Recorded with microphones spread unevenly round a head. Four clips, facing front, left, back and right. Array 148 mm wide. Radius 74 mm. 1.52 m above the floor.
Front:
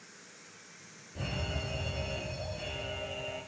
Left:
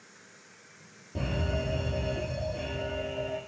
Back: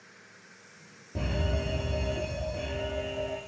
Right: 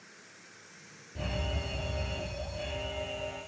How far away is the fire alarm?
About 7 m.